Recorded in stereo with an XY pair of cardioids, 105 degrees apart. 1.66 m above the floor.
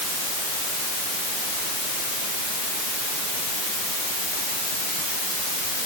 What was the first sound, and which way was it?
Only background noise.